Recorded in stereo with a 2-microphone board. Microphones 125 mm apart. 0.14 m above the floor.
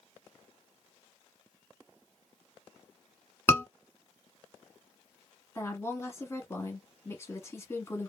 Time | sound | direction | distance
3.5 | a scream | 20° left (ahead or behind) | 1.3 m
5.5 | a woman speaking | 20° left (ahead or behind) | 1.2 m